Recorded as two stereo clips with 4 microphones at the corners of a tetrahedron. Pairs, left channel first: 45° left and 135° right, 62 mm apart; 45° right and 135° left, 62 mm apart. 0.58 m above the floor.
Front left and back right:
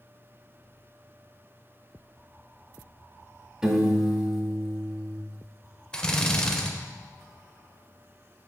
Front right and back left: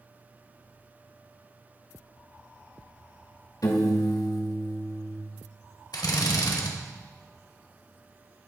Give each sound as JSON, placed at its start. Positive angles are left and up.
{"t": 3.6, "sound": "a piano", "azimuth_deg": -55, "distance_m": 0.9}
{"t": 5.9, "sound": "a drill", "azimuth_deg": -30, "distance_m": 0.8}